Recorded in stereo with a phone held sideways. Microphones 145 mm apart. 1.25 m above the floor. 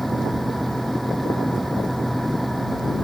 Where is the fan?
Centre (ahead or behind).